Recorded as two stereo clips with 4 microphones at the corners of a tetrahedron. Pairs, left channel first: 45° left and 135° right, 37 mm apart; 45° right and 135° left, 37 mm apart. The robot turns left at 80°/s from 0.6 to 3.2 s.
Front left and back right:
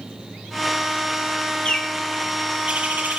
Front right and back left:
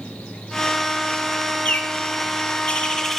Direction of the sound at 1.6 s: 5° right.